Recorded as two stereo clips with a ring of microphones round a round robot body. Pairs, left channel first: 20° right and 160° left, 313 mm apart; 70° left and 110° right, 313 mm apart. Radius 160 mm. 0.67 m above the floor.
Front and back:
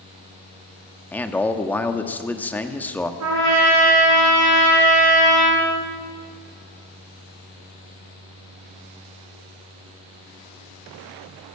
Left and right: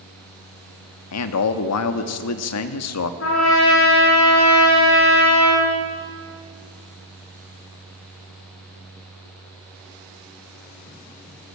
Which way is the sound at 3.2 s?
115° left.